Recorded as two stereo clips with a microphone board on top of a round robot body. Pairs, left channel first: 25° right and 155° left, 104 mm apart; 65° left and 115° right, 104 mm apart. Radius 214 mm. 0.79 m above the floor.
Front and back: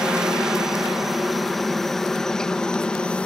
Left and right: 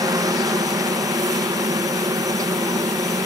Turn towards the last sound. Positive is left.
turn(degrees=-95)